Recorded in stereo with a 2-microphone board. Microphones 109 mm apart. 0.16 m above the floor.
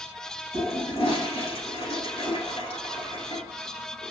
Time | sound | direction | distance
0.5 | a toilet flushing | 65° left (ahead or behind) | 1.8 m